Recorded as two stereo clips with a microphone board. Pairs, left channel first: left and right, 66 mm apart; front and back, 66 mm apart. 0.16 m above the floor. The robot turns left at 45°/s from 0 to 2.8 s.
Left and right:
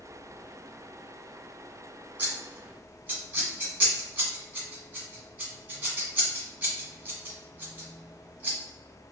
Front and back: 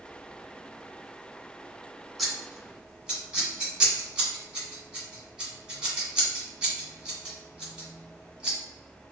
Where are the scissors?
85° right, 1.7 m; by 8.6 s 115° right, 1.7 m.